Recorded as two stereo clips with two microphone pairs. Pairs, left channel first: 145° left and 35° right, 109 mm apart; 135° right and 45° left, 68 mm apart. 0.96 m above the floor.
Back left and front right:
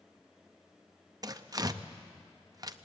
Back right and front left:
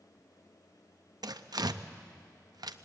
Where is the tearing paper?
20° left, 0.6 m.